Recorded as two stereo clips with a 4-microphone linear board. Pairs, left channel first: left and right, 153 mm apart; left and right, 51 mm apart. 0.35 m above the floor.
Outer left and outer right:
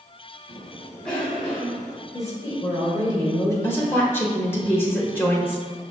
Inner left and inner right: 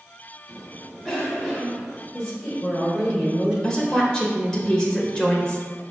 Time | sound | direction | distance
0.5 | a cough | 5° left (ahead or behind) | 1.1 m
2.1 | a woman speaking | 20° left (ahead or behind) | 1.8 m
3.6 | a woman speaking | 15° left (ahead or behind) | 1.0 m